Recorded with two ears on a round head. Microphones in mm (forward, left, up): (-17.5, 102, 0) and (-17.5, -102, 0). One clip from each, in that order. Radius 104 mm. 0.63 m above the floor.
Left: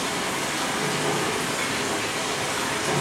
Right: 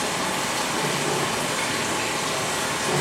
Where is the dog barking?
No dog barking in this recording.